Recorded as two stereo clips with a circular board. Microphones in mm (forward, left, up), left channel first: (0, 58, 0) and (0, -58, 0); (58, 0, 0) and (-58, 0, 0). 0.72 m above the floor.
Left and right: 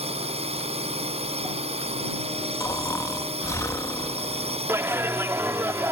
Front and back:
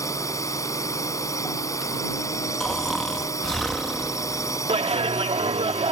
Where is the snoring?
85° left.